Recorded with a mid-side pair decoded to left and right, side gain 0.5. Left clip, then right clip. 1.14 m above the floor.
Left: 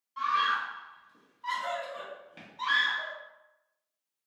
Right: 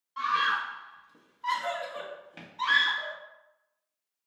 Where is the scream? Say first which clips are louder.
Right 1 dB; 25° right, 0.9 m.